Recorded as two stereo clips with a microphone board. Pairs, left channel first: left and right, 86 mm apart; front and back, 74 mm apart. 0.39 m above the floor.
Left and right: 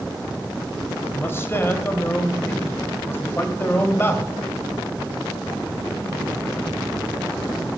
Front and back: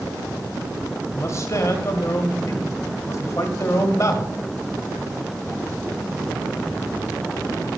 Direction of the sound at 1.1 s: 35° left.